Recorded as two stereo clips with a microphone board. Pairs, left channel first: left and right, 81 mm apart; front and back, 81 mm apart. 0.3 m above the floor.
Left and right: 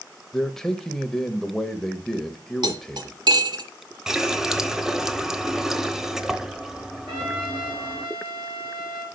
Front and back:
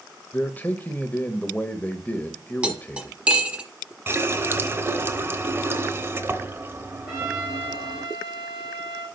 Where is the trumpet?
100° right, 5 m.